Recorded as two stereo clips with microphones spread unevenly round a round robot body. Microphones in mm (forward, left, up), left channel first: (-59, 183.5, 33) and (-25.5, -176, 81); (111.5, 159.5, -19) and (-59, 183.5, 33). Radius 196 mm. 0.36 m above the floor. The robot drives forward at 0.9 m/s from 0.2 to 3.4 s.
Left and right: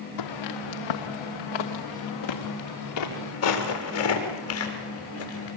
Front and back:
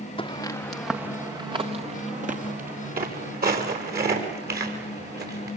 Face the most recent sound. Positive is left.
turn(degrees=150)